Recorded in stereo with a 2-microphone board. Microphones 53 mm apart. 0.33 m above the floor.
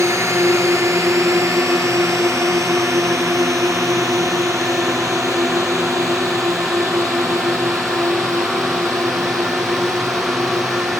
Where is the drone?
65° right (ahead or behind); by 11.0 s 80° right.